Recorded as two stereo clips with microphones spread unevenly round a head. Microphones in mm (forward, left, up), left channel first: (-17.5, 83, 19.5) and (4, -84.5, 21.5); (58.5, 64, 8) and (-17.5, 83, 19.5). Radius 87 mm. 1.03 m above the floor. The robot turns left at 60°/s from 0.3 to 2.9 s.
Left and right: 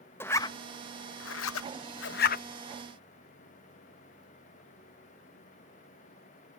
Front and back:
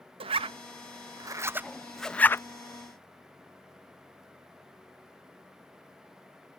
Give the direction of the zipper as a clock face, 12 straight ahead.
6 o'clock.